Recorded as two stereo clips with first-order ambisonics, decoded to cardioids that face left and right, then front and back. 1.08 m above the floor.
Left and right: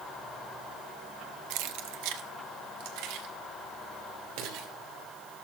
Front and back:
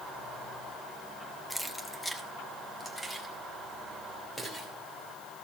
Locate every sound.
1.5 s keys jangling: 90° right, 0.8 m; by 4.7 s 80° right, 3 m